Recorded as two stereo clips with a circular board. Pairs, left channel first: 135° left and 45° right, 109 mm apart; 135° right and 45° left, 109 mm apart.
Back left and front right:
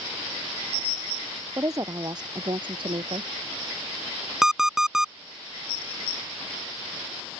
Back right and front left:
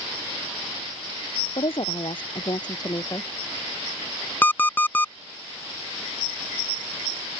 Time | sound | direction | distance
1.6 | a woman speaking | 105° right | ?
4.4 | an alarm clock | 125° right | ?